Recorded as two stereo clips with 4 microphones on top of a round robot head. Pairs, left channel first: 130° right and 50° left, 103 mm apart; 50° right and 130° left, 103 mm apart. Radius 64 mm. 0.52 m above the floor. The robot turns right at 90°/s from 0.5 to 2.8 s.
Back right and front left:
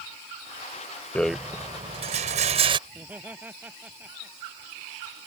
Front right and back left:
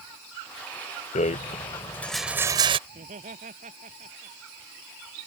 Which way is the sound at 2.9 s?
125° left.